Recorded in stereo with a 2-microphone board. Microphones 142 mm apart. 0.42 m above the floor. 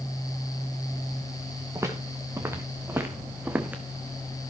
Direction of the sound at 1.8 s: 20° right (ahead or behind).